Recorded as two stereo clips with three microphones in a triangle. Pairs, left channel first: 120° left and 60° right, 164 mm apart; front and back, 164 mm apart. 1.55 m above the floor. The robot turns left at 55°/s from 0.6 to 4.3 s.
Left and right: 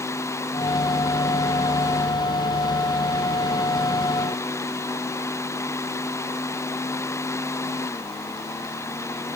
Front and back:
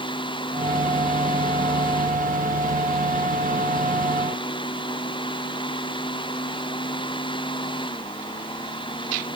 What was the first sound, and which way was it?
Only background noise.